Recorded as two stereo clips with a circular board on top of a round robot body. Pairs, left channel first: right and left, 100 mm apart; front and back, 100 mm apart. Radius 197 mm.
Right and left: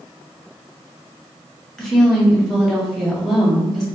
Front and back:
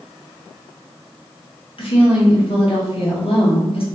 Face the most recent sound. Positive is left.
turn(degrees=-5)